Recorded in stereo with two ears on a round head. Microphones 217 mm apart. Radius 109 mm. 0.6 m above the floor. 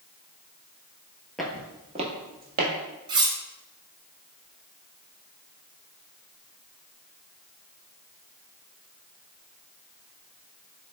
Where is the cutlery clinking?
20° right (ahead or behind), 0.5 m.